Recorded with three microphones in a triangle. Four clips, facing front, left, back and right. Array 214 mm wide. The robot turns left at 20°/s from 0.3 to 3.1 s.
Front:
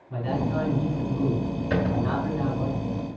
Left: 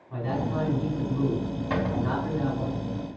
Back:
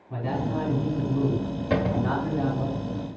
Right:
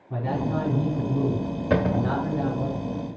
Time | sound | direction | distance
0.1 | a man speaking | 100° right | 4 m
1.7 | a cupboard door | 105° right | 1.4 m